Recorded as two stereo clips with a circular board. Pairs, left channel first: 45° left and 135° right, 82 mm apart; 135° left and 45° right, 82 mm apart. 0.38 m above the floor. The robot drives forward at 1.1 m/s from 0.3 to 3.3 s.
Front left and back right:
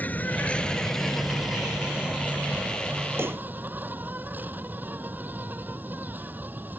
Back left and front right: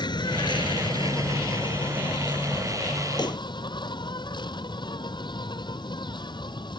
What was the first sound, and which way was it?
An insect, 115° left.